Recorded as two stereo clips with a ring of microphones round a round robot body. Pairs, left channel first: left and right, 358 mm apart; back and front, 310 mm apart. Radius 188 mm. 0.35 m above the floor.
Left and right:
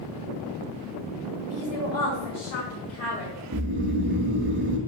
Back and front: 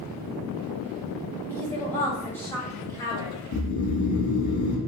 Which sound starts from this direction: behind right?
Snoring, at 3.5 s.